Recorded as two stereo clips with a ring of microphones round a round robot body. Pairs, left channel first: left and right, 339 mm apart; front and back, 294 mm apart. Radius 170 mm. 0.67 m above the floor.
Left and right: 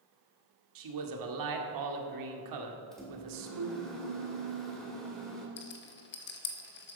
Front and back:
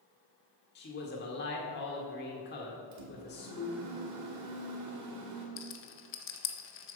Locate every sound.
0.8 s a man speaking: 60° right, 1.7 m
2.9 s a microwave: straight behind, 2 m
5.6 s a rattle: 35° left, 1.1 m